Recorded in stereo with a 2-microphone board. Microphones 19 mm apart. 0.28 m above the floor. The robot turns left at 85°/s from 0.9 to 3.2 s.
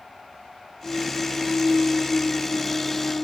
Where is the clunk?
115° left, 4 m; by 3.2 s 80° right, 4 m.